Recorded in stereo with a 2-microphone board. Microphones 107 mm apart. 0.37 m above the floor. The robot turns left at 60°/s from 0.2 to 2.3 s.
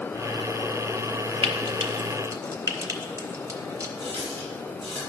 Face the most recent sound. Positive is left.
turn(degrees=30)  # may be behind; listen again after turning